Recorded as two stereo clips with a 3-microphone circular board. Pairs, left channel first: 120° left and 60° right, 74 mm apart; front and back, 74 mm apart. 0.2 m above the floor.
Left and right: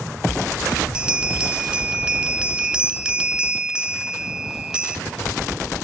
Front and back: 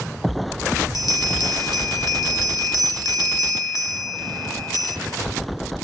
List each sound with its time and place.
0.9 s a bell: 15° left, 0.6 m